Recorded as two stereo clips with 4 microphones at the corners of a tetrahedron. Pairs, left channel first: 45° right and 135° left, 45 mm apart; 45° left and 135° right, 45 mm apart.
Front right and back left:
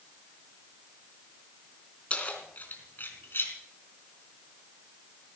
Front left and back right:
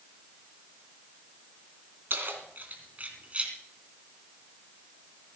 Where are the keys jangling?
105° right, 3 m; by 3.5 s 75° right, 3 m.